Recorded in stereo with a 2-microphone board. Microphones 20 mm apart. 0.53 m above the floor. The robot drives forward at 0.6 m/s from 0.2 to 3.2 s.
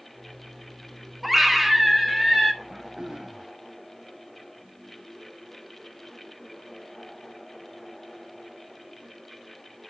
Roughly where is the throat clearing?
Right.